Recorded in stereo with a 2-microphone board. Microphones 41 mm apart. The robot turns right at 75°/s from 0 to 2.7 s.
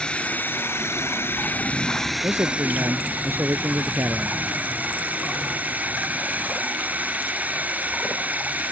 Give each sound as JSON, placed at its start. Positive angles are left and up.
{"t": 0.0, "sound": "a drone", "azimuth_deg": 20}
{"t": 2.2, "sound": "a man speaking", "azimuth_deg": -105}